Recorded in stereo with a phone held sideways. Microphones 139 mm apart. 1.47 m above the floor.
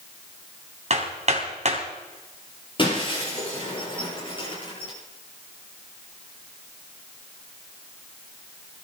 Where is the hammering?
55° right (ahead or behind), 3 m.